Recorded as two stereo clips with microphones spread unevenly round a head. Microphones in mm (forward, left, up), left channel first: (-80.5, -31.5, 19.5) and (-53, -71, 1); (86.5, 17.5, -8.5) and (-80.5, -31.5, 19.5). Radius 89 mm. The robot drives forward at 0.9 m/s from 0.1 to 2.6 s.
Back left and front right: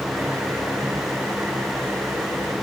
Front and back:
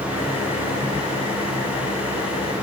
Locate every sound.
Only background noise.